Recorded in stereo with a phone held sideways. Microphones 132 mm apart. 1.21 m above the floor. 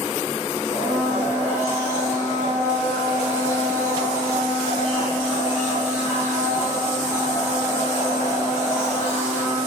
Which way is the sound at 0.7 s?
20° right (ahead or behind).